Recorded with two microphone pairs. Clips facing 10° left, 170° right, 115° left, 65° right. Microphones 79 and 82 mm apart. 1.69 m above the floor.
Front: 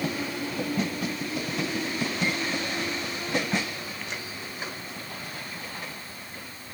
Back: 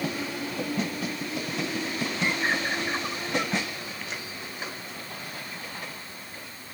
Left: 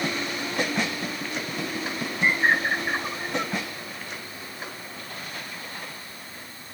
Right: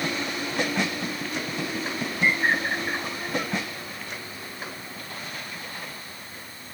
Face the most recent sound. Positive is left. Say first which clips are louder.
# back 2 dB, left 2 dB
turn(degrees=180)